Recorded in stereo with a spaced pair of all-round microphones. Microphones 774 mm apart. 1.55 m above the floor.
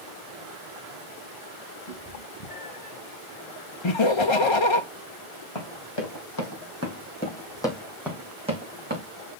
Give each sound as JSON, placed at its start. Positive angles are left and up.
{"t": 1.9, "sound": "a cat meowing", "side_deg": 30, "distance_m": 3.0}
{"t": 3.8, "sound": "laughter", "side_deg": 40, "distance_m": 0.7}
{"t": 5.5, "sound": "running footsteps", "side_deg": 40, "distance_m": 3.0}